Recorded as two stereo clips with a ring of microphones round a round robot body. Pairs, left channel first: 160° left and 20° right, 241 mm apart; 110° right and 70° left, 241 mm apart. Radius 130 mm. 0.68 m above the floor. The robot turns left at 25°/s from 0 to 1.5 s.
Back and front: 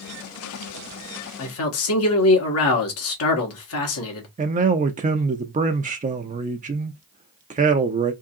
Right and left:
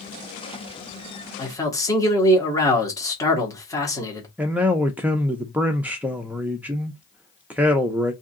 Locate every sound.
1.4 s a man speaking: 175° left, 1.6 m; by 4.3 s 170° left, 1.6 m
4.4 s a man speaking: 10° right, 0.6 m